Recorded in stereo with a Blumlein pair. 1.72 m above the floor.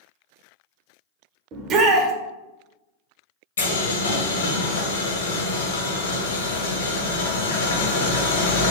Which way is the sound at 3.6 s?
65° left.